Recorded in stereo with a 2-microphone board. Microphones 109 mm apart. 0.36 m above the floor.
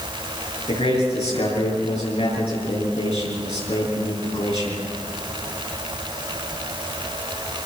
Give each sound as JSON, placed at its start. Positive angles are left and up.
{"t": 0.7, "sound": "a man speaking", "side_deg": 70, "distance_m": 7.0}